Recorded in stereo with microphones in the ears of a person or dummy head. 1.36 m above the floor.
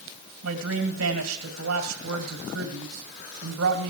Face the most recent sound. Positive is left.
turn(degrees=-80)